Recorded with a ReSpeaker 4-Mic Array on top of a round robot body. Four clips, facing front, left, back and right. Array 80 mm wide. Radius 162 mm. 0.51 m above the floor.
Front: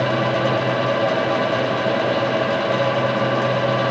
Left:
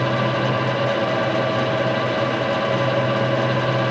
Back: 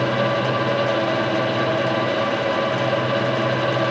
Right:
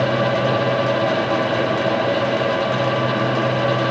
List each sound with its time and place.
Only background noise.